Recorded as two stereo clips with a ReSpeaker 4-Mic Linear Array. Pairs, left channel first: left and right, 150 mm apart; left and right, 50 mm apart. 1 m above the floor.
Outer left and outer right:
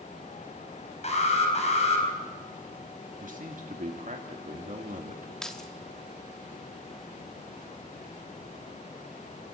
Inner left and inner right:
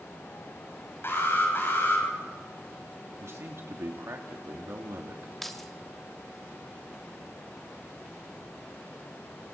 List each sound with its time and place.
1.0 s an alarm: 50° left (ahead or behind), 4.5 m
3.2 s a man speaking: 60° right (ahead or behind), 2.5 m
5.4 s keys jangling: 5° left (ahead or behind), 1.3 m